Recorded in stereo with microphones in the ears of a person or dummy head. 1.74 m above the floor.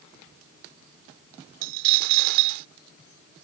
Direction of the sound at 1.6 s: 50° right (ahead or behind).